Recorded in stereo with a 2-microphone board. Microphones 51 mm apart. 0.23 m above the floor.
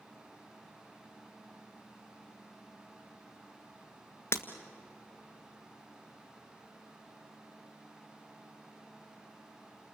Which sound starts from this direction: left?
Breaking glass, at 4.3 s.